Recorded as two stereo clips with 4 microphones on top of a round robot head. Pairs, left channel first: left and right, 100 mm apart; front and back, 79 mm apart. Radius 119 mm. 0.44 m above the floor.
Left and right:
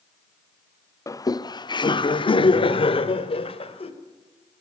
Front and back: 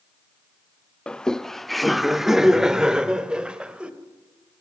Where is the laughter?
70° left, 1.0 m; by 3.9 s 105° left, 2.5 m.